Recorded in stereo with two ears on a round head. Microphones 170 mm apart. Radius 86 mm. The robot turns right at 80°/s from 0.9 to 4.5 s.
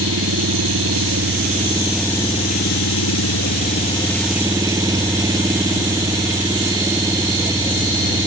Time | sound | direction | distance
0.0 | an engine running | 90° right | ?